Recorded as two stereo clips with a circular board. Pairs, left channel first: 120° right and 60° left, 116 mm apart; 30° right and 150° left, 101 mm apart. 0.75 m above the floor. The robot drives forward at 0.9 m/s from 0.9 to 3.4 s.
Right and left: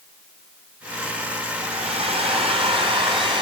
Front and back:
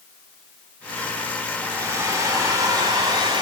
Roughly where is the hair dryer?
Left.